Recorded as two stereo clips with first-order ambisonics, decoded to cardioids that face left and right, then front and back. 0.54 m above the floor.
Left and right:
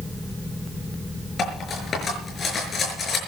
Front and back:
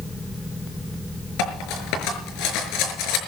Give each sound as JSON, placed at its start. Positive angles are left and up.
{"t": 1.4, "sound": "cutlery clinking", "azimuth_deg": 25, "distance_m": 5.5}